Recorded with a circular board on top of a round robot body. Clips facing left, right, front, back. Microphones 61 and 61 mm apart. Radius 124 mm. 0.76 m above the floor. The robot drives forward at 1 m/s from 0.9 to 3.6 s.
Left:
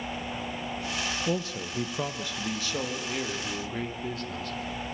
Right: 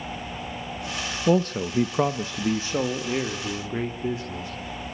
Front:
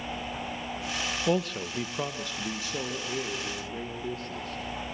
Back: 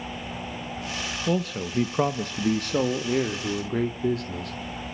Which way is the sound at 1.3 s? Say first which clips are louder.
Right 9 dB, back 2 dB; 75° right.